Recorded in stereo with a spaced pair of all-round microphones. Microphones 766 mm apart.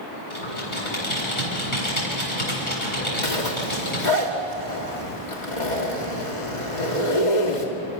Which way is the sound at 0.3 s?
40° left (ahead or behind).